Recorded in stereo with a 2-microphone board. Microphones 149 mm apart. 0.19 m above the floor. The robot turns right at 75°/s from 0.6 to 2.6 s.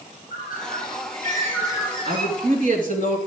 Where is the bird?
95° left, 4.5 m; by 2.5 s 120° right, 4.5 m.